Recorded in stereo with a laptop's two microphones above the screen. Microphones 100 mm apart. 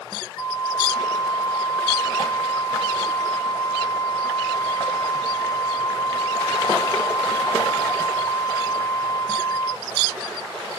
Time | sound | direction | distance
0.4 | a flute | 35° left (ahead or behind) | 0.9 m